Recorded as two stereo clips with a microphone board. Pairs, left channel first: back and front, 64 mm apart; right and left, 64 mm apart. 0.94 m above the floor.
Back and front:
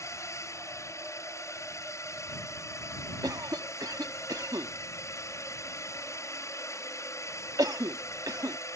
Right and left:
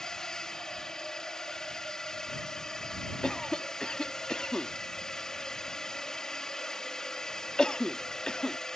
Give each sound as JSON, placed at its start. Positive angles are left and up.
{"t": 0.0, "sound": "a drone", "azimuth_deg": -170}
{"t": 3.2, "sound": "a cough", "azimuth_deg": -10}